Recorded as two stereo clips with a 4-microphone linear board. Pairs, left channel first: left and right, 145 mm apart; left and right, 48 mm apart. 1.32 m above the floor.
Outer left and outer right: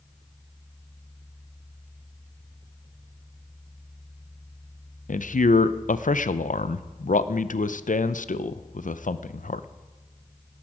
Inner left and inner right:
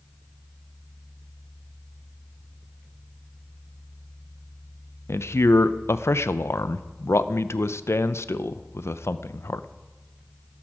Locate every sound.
5.1 s a man speaking: 65° left (ahead or behind), 0.6 m